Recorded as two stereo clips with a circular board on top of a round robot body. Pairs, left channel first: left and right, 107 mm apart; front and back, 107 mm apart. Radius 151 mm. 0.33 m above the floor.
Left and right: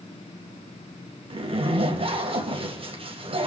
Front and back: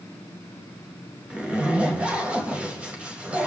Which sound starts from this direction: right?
A zipper, at 1.3 s.